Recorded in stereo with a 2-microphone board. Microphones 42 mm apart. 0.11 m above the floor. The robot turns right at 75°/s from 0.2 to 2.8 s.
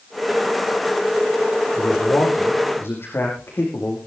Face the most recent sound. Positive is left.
turn(degrees=105)